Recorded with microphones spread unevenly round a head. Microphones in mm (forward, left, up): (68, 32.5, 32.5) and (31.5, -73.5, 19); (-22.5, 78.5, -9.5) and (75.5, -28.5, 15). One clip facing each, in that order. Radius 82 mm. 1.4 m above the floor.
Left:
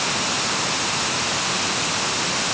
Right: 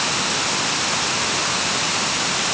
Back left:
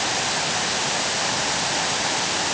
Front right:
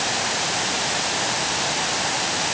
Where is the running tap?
I don't hear a running tap.